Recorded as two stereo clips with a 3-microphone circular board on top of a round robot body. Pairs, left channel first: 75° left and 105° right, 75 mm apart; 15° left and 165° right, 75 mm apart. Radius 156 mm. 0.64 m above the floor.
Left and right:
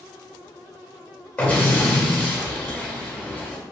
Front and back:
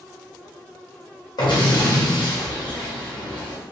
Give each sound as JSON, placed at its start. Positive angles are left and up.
{"t": 1.4, "sound": "an explosion", "azimuth_deg": 10, "distance_m": 1.7}